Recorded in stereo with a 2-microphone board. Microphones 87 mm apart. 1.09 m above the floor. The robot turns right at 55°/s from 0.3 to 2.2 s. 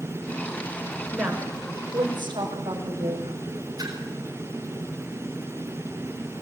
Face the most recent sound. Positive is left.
turn(degrees=-45)  # may be behind; listen again after turning